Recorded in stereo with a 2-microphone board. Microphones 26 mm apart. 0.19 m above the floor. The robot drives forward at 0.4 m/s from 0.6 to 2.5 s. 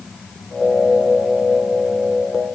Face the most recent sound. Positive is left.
No sound to turn to.